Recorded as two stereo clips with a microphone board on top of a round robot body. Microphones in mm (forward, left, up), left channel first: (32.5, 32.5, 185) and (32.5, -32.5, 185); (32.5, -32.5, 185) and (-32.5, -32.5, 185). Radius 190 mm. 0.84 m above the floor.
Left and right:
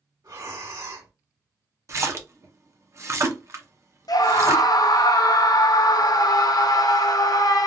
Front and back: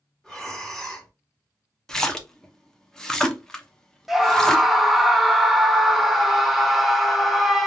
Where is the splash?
75° right, 0.9 m.